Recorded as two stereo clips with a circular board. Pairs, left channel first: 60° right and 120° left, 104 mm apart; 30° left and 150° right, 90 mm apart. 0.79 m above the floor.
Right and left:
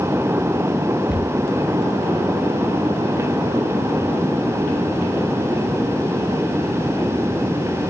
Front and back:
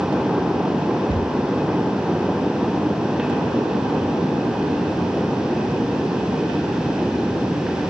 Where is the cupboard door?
15° right, 9.5 m.